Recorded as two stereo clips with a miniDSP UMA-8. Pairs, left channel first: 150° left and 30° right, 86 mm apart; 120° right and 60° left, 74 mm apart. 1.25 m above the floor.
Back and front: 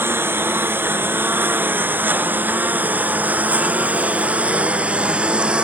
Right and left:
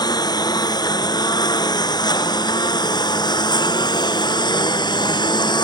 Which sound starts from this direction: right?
A lawn mower, at 0.0 s.